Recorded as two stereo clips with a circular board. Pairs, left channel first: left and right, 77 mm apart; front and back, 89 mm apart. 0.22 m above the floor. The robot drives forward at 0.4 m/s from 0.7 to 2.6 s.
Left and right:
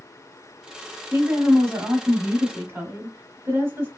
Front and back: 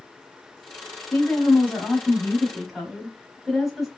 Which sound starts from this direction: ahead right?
A woman speaking, at 1.1 s.